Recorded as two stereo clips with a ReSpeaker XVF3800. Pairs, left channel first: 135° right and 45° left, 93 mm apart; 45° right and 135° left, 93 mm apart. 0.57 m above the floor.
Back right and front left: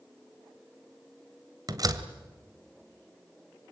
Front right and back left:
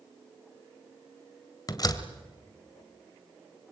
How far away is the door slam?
About 1.9 m.